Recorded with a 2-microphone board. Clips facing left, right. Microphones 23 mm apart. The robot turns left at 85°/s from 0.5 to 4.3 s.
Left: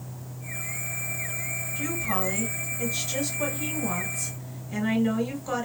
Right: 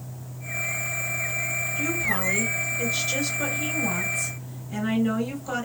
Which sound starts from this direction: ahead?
A woman speaking, at 1.8 s.